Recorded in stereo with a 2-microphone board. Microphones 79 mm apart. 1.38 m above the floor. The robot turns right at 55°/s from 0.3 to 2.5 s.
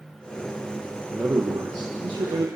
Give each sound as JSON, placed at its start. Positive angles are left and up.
{"t": 1.1, "sound": "a man speaking", "azimuth_deg": -160, "distance_m": 1.1}